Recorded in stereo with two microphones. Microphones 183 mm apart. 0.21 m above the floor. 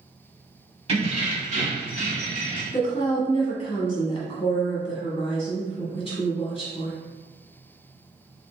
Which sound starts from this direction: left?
A woman speaking, at 2.7 s.